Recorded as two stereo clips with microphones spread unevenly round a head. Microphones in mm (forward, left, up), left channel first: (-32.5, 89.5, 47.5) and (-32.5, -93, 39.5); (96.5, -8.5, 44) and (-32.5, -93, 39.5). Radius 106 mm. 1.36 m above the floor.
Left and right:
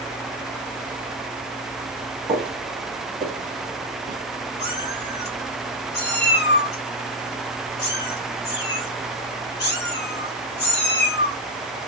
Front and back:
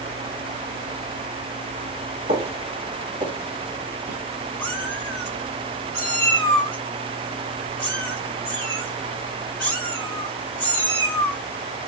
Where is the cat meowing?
120° left, 1.6 m.